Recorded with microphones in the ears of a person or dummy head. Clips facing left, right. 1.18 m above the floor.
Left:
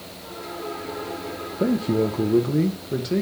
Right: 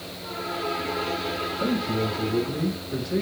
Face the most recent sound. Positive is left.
turn(degrees=40)  # may be behind; listen again after turning